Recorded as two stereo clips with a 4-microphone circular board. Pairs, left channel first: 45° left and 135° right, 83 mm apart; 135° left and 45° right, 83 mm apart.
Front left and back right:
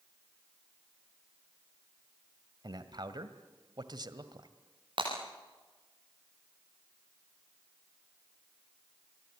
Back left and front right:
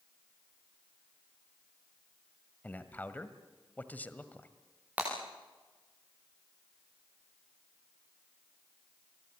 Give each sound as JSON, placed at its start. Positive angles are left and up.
{"t": 2.6, "sound": "a man speaking", "azimuth_deg": -160, "distance_m": 1.7}
{"t": 5.0, "sound": "breaking glass", "azimuth_deg": -115, "distance_m": 9.5}